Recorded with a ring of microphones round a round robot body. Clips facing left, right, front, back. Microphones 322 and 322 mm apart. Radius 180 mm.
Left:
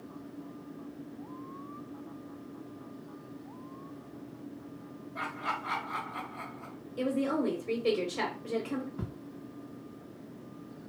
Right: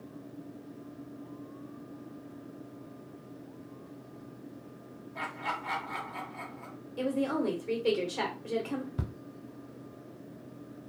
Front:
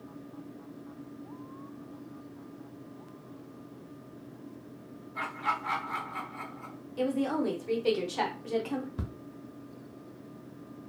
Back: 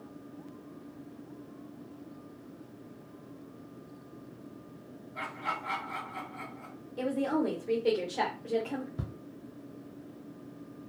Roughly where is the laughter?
Ahead right.